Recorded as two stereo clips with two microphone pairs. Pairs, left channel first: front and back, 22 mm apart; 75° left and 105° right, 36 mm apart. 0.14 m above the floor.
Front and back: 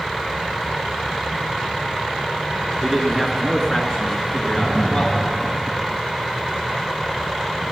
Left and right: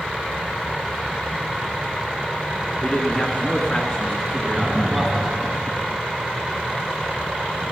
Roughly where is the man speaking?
Left.